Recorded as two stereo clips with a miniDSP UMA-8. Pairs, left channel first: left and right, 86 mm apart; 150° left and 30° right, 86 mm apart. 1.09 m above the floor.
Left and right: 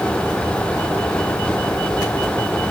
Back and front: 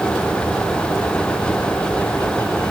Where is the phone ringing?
I don't hear a phone ringing.